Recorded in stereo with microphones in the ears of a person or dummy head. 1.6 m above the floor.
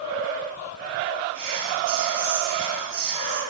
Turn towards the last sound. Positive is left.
turn(degrees=-75)  # may be behind; listen again after turning